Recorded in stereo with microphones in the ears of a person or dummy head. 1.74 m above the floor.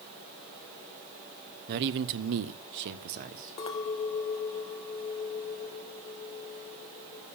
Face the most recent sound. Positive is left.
turn(degrees=25)  # may be behind; listen again after turning